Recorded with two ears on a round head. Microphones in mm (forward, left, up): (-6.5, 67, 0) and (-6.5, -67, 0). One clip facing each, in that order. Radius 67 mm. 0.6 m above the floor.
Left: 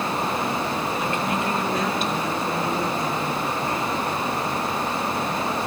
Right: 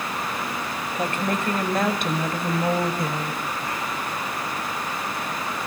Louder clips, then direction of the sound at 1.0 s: Left 1 dB; 35° right (ahead or behind).